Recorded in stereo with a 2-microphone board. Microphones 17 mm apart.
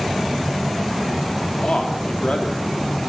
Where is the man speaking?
75° left (ahead or behind), 3 m.